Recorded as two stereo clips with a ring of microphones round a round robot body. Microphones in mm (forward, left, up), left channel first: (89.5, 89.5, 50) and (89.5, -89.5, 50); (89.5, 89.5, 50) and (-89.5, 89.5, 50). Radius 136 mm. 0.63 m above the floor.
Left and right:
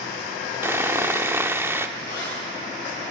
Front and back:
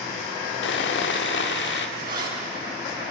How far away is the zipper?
About 7 m.